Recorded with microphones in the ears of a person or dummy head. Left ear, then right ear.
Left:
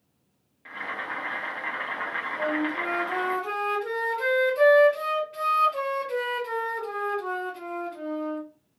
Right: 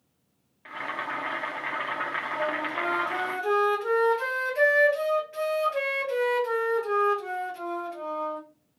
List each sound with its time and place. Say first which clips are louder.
0.7 s boiling: even; 20° right (ahead or behind), 0.7 m
2.4 s a flute: left 2 dB; 20° right (ahead or behind), 1.5 m